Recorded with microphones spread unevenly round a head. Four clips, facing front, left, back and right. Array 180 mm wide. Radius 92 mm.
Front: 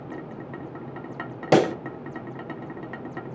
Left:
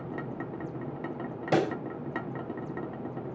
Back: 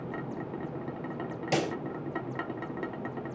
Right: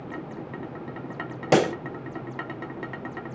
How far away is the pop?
About 1.0 m.